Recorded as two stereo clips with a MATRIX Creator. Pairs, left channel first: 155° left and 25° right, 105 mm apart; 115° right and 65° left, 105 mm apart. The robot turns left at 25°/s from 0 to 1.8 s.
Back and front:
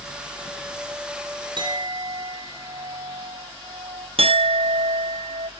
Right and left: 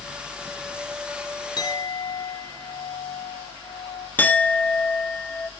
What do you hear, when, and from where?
1.6 s a clink: 60° right, 1.8 m; by 4.1 s 70° right, 1.8 m
4.2 s a clink: 40° right, 0.7 m